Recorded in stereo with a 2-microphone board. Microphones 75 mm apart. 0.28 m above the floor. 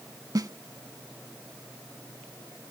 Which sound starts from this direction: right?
A snare drum, at 0.3 s.